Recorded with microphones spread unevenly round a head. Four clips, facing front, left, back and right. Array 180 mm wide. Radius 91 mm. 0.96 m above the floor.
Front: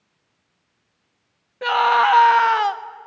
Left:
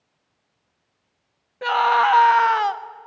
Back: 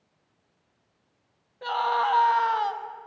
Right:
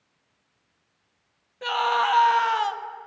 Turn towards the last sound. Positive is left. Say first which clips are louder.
# left 6 dB, front 8 dB
turn(degrees=25)